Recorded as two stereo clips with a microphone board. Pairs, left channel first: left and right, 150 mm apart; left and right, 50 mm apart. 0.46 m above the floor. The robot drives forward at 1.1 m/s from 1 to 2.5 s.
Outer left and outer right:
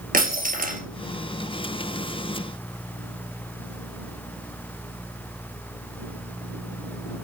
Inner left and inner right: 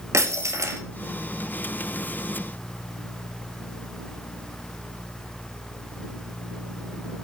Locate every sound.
0.1 s breaking glass: 70° right (ahead or behind), 1.9 m